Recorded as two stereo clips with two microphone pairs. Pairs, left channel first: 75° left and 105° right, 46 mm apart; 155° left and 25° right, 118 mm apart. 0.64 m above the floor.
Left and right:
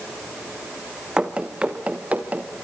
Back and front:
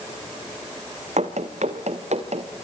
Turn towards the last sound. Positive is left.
turn(degrees=-45)